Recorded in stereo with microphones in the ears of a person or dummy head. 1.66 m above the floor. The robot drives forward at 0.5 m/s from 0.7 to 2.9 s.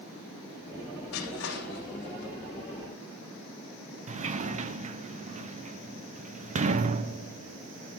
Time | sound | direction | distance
1.1 | crushing | 75° left (ahead or behind) | 3.5 m
4.1 | a sliding door | 35° right (ahead or behind) | 0.7 m